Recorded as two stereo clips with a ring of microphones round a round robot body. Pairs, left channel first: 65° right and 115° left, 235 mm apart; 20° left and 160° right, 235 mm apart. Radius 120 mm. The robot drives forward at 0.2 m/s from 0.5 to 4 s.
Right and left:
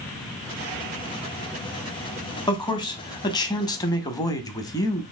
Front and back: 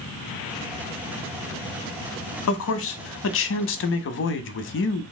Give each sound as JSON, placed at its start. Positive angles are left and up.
{"t": 2.5, "sound": "a man speaking", "azimuth_deg": 5, "distance_m": 0.9}